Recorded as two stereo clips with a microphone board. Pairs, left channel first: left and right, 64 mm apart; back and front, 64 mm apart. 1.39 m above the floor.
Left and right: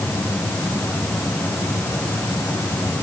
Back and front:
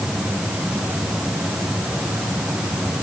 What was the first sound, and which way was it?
Only background noise.